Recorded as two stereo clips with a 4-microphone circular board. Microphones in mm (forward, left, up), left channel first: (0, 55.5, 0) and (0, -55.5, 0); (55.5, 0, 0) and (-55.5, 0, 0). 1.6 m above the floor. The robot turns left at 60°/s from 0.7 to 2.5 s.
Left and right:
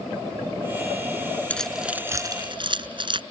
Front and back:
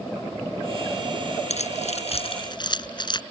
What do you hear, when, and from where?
1.5 s keys jangling: 10° left; by 3.2 s 50° right